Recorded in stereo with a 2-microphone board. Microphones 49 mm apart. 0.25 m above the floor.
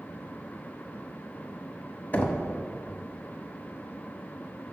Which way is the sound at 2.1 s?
35° left (ahead or behind).